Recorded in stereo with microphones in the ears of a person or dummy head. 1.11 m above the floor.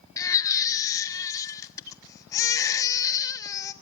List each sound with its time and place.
0.2 s a baby crying: 20° left (ahead or behind), 1.2 m